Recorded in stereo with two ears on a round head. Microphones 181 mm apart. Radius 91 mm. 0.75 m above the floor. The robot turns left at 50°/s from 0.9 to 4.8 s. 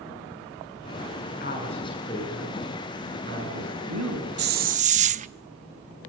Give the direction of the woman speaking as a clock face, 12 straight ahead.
10 o'clock.